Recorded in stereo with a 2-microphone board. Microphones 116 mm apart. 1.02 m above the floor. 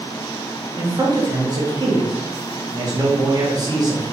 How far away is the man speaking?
About 0.9 m.